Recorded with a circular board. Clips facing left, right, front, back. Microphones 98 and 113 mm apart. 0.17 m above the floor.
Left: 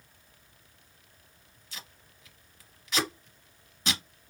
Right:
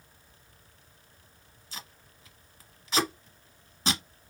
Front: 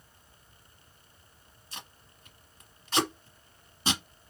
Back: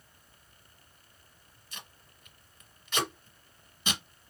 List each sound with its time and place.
1.7 s tape being pulled: 40° right, 1.3 m